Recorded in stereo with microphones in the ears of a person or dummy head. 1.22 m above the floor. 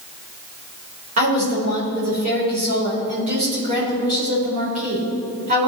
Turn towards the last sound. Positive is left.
turn(degrees=-40)  # may be behind; listen again after turning